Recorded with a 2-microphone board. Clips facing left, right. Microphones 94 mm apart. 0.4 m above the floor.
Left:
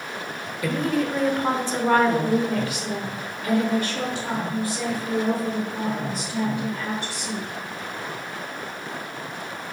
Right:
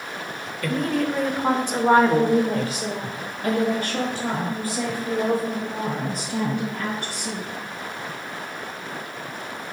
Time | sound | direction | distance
0.6 | a woman speaking | 5° left (ahead or behind) | 1.1 m